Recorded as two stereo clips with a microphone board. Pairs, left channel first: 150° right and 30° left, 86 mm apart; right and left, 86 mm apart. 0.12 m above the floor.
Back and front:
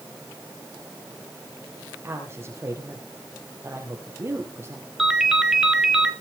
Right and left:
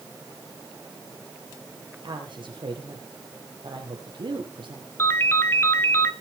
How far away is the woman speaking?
About 4 m.